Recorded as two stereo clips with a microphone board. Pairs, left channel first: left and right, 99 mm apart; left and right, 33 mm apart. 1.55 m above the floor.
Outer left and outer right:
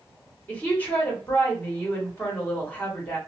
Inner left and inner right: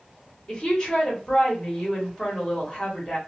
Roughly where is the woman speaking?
Centre.